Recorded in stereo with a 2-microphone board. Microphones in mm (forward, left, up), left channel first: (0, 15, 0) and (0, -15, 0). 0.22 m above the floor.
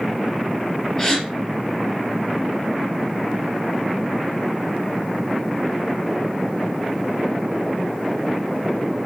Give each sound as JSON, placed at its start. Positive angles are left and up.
{"t": 1.0, "sound": "a gasp", "side_deg": 15, "distance_m": 3.0}